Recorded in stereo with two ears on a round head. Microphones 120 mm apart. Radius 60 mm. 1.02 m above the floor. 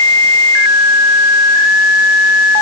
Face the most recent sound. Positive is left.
No sound to turn to.